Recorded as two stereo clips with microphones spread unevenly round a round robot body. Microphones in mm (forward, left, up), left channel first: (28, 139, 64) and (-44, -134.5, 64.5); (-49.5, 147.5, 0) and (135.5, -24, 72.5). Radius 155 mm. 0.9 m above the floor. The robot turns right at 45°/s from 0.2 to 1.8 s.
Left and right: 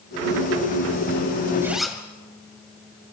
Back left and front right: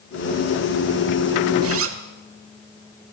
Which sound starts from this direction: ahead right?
A zipper, at 1.6 s.